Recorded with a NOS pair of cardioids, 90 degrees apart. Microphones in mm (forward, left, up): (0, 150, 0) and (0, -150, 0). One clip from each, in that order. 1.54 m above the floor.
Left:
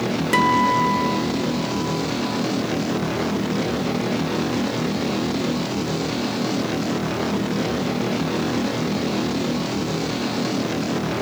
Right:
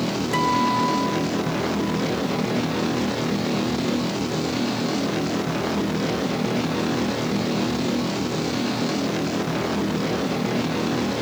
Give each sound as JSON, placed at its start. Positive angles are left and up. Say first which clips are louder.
{"t": 0.3, "sound": "a guitar", "louder": "left 4 dB", "azimuth_deg": 65, "distance_m": 1.5}